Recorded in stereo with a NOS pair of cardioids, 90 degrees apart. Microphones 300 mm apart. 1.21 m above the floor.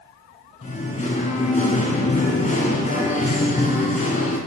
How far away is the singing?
About 4 m.